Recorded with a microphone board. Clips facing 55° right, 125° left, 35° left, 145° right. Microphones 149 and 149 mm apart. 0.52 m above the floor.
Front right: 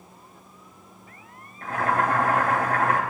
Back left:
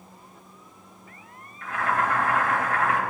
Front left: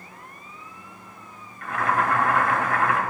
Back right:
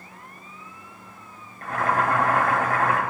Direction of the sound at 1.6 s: 100° right.